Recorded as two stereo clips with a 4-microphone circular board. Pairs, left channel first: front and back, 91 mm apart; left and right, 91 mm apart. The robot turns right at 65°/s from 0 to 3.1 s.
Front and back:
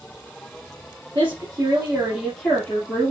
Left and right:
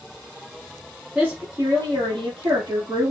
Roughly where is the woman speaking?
Behind.